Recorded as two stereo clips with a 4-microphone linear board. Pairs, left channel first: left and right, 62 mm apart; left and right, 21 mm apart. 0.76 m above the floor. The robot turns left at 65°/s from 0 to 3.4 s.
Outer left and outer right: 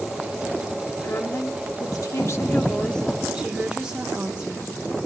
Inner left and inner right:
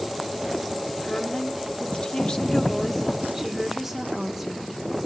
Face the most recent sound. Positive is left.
turn(degrees=-15)